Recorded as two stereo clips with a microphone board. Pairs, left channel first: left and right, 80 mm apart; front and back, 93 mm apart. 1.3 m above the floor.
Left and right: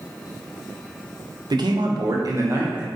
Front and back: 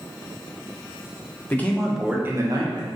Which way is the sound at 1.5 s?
65° right.